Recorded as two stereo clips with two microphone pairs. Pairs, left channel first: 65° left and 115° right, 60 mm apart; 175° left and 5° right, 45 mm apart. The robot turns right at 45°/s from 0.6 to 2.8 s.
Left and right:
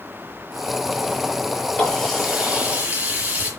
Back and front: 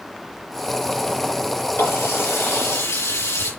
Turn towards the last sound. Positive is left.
turn(degrees=180)